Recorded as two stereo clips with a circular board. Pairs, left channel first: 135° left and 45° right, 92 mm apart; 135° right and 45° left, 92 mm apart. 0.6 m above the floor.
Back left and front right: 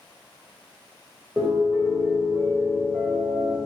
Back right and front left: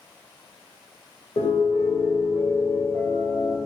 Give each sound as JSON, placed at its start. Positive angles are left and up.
{"t": 1.4, "sound": "a piano", "azimuth_deg": -110, "distance_m": 2.0}